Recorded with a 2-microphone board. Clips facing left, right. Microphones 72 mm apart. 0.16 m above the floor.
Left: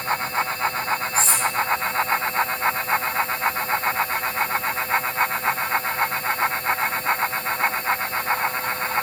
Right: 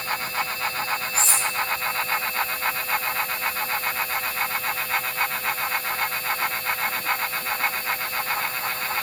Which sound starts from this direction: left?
Cutlery clinking, at 1.1 s.